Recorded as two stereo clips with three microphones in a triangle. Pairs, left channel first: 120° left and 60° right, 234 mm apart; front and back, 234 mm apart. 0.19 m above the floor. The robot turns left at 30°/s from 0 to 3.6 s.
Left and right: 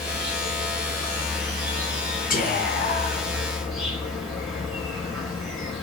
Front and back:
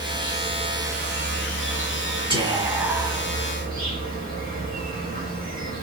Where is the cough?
I don't hear a cough.